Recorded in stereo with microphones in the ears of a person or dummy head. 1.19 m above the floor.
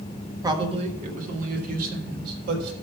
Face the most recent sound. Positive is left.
turn(degrees=-60)  # may be behind; listen again after turning